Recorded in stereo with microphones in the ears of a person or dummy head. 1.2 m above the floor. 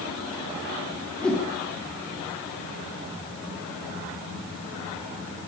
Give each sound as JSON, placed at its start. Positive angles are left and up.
{"t": 1.2, "sound": "a whoosh", "side_deg": 5, "distance_m": 3.0}